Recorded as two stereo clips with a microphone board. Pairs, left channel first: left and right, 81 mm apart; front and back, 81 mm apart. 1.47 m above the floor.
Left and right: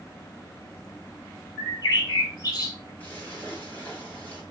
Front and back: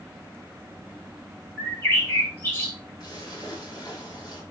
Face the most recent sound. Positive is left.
turn(degrees=25)